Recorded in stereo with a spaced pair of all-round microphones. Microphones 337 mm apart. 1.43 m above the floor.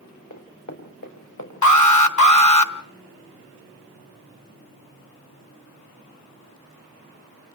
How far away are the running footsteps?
About 5 m.